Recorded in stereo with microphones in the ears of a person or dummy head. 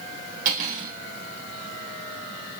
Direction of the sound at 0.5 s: 50° right (ahead or behind).